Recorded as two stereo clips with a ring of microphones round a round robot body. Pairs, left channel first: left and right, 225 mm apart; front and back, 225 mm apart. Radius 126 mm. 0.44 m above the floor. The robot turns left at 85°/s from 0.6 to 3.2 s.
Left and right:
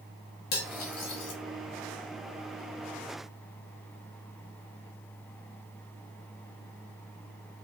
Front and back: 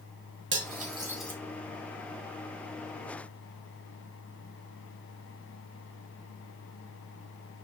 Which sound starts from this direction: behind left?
Cutlery clinking, at 0.5 s.